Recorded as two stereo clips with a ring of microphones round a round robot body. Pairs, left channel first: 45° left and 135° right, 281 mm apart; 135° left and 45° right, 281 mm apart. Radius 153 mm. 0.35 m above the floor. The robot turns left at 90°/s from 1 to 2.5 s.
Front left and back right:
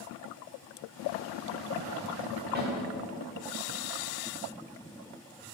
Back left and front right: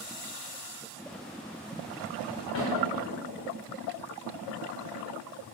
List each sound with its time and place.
2.5 s a snare drum: 175° left, 3 m